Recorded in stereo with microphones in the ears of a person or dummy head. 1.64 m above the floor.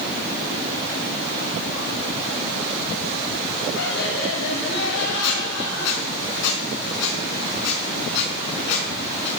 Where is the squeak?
65° left (ahead or behind), 5 m.